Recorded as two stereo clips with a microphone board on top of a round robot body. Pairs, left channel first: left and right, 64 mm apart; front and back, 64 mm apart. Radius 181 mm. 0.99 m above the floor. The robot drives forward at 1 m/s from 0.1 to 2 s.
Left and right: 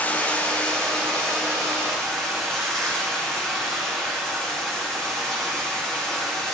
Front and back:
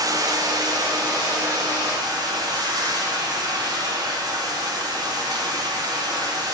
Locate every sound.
0.0 s running water: 155° left, 1.4 m; by 6.5 s 170° left, 3 m